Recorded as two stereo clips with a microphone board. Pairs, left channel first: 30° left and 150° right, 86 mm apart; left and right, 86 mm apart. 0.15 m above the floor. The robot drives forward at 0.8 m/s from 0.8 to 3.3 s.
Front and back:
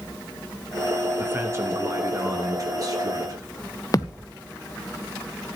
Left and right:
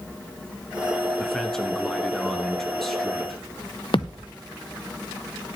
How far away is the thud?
About 0.8 m.